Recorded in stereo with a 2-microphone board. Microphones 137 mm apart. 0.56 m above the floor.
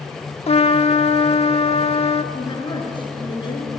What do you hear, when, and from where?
0.5 s a trumpet: 45° left (ahead or behind), 0.8 m
2.3 s a woman speaking: 35° left (ahead or behind), 6 m